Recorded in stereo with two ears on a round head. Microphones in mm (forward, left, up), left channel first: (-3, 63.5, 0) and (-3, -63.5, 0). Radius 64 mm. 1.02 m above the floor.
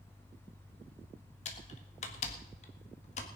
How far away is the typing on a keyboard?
About 1.8 m.